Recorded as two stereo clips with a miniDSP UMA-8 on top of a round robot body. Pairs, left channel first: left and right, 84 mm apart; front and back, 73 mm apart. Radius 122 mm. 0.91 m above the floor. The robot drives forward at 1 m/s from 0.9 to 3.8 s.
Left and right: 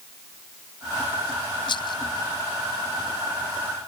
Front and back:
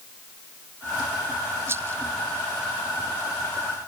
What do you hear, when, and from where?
1.7 s a rattle: 120° left; by 2.0 s 125° left